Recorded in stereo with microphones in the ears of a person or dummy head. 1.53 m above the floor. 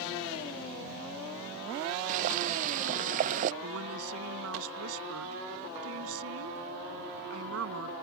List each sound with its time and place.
2.1 s boiling: 45° right (ahead or behind)
3.6 s a woman speaking: 75° right (ahead or behind)